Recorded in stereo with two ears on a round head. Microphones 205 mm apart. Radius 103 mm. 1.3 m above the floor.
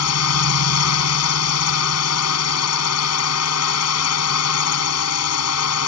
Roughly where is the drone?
Left.